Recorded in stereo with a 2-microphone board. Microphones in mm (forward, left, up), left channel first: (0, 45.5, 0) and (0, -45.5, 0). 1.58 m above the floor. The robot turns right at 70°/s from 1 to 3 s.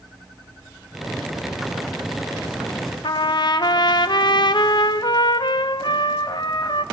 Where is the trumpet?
55° left (ahead or behind), 1.0 m.